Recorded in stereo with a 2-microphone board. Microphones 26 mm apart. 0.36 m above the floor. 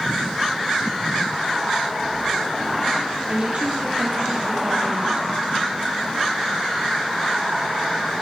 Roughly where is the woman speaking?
Right.